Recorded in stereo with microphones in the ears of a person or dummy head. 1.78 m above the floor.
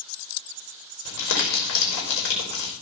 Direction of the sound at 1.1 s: 65° left (ahead or behind).